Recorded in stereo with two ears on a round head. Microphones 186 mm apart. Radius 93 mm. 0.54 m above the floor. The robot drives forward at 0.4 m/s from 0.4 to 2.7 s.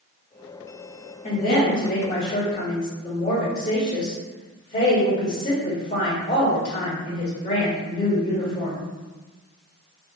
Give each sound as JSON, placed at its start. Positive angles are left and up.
{"t": 1.2, "sound": "a woman speaking", "side_deg": 35, "distance_m": 1.4}